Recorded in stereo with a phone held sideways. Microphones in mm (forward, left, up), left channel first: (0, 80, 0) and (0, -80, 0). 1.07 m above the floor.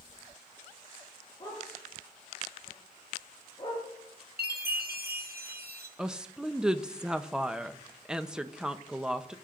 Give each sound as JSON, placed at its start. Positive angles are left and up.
{"t": 1.4, "sound": "a dog barking", "side_deg": 30, "distance_m": 9.5}
{"t": 4.4, "sound": "a chime", "side_deg": -85, "distance_m": 1.7}
{"t": 6.0, "sound": "a woman speaking", "side_deg": -5, "distance_m": 0.9}